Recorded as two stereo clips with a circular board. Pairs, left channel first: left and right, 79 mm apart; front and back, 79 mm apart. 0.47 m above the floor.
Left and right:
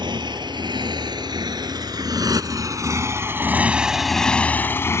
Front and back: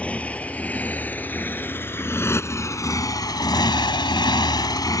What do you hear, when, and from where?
0.0 s a motorcycle: 75° right; by 5.0 s 40° left